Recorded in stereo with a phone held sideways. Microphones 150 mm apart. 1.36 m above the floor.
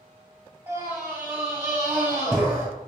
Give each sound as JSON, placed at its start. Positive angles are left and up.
{"t": 0.7, "sound": "a scream", "side_deg": -15, "distance_m": 4.0}